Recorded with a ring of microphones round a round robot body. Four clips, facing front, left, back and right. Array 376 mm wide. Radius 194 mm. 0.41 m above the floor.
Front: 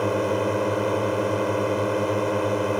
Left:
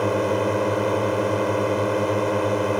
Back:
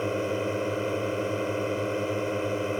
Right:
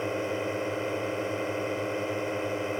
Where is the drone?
60° left.